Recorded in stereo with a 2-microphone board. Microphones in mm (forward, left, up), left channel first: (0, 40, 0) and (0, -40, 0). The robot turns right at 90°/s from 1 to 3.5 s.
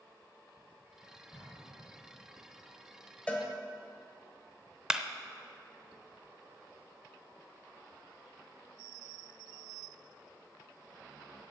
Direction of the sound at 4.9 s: 10° right (ahead or behind).